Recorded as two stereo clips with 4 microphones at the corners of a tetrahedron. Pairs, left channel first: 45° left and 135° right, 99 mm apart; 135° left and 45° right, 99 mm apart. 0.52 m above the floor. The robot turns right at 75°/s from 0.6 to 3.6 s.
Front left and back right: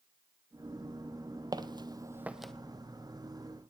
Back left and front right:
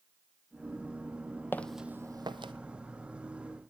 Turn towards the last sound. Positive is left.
turn(degrees=45)